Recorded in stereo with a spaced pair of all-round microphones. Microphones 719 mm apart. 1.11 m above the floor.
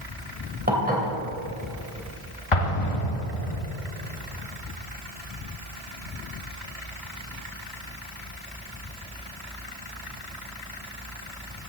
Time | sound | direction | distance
0.7 | dishes clattering | 10° right (ahead or behind) | 3 m
2.5 | an explosion | 45° left (ahead or behind) | 1.2 m